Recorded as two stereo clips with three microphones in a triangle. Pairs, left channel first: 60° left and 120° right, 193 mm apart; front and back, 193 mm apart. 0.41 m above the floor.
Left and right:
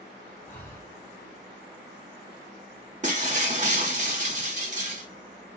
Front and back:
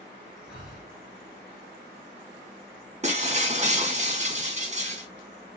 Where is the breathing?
5° right, 1.9 m.